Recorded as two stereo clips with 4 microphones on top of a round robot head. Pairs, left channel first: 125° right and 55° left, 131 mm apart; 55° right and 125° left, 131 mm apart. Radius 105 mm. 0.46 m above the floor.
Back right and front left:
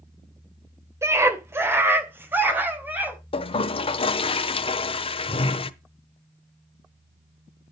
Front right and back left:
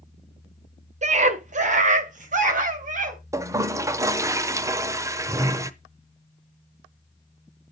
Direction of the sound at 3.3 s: 170° right.